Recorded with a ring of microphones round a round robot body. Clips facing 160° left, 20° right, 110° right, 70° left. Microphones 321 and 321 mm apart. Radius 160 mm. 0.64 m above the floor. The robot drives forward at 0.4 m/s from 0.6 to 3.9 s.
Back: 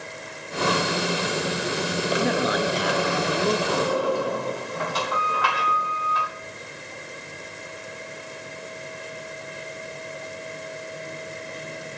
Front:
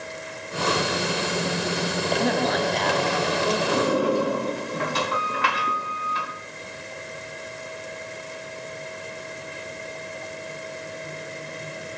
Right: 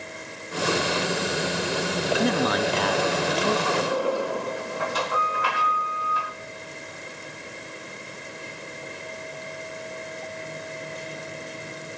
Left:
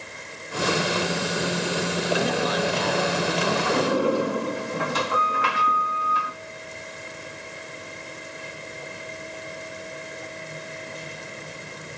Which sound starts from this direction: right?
A man speaking, at 2.2 s.